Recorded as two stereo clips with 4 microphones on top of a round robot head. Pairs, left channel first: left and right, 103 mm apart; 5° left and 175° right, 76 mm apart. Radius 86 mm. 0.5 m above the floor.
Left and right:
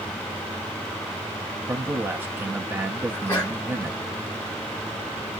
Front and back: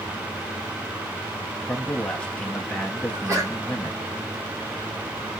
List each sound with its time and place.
1.7 s a man speaking: 55° right, 0.7 m
3.1 s a sneeze: 155° left, 1.8 m